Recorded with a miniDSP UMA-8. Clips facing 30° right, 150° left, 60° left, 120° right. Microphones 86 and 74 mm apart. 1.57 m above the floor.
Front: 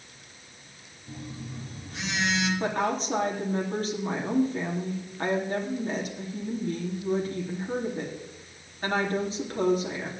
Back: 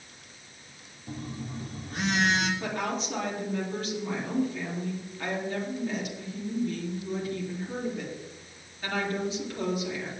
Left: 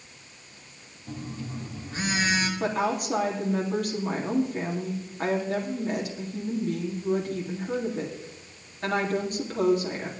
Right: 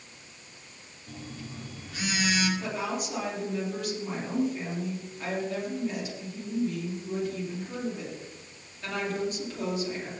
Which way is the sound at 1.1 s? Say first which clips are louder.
Back 2 dB, left 5 dB; 115° left.